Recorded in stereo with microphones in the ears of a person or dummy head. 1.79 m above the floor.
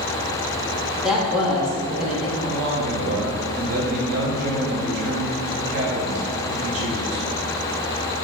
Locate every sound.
1.0 s a woman speaking: 5° right (ahead or behind), 1.6 m
2.4 s a man speaking: 85° right, 2.0 m